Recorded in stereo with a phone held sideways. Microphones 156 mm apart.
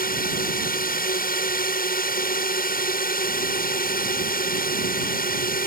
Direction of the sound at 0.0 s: 70° left (ahead or behind).